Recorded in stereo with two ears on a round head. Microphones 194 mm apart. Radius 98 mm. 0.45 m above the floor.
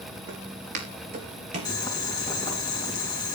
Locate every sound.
0.3 s footsteps: 55° right (ahead or behind), 4.5 m; by 1.8 s 25° right (ahead or behind), 4.5 m
1.6 s boiling: 20° left (ahead or behind), 2.5 m